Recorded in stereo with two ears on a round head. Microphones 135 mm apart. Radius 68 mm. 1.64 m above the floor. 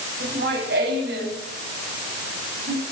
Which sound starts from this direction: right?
Laughter, at 0.2 s.